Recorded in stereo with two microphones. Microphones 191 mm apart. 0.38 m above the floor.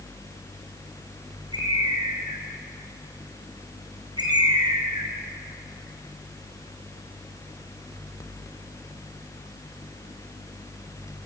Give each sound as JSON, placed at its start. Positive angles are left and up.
{"t": 1.5, "sound": "a bird", "side_deg": -20, "distance_m": 3.5}